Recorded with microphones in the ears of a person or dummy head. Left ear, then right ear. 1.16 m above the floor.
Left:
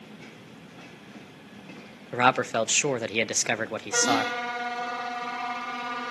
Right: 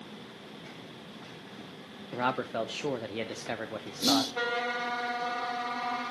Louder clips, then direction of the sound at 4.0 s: Left 1 dB; 70° right (ahead or behind).